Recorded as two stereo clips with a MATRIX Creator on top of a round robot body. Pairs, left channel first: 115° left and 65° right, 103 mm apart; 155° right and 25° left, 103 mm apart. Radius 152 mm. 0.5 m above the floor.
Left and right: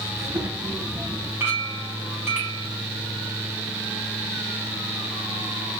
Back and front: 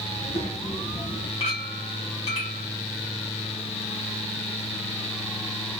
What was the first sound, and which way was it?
A child speaking, 140° right.